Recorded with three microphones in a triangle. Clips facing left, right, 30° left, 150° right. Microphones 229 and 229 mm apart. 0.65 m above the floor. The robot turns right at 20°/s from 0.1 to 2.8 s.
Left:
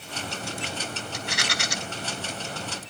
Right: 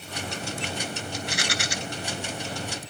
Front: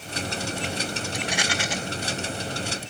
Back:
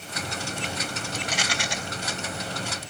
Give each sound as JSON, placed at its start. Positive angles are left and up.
{"t": 1.1, "sound": "a rattle", "azimuth_deg": 105, "distance_m": 2.5}